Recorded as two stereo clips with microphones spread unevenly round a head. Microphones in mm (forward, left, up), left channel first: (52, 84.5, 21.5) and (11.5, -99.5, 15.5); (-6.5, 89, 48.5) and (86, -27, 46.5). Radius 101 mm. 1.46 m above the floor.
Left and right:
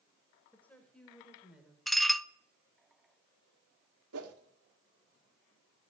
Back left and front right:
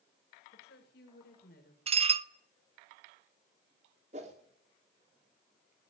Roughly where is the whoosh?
Right.